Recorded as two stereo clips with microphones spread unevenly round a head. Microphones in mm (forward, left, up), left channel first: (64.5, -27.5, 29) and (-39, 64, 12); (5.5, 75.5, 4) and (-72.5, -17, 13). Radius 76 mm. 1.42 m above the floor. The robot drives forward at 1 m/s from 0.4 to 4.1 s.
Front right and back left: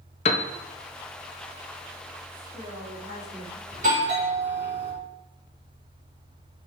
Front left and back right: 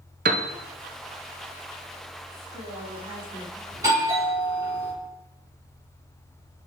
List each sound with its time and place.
0.2 s a piano: 90° right, 0.7 m; by 0.5 s 100° right, 0.7 m
2.3 s a woman speaking: 170° right, 3 m; by 3.6 s 175° right, 4 m
3.7 s a doorbell: 170° left, 4 m